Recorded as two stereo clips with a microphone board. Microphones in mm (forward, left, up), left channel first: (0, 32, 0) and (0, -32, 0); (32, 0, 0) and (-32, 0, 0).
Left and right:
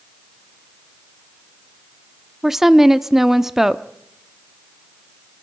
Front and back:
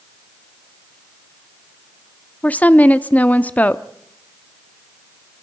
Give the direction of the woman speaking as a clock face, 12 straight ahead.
12 o'clock.